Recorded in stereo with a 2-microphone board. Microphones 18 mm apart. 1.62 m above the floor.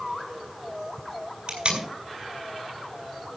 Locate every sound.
1.5 s tape being pulled: 50° right (ahead or behind), 6.5 m